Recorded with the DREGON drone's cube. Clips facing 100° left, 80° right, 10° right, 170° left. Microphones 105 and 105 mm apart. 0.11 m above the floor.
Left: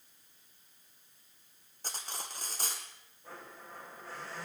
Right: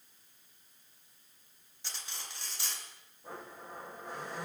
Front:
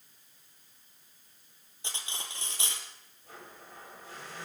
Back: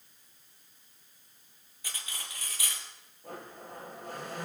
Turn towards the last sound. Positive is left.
turn(degrees=-150)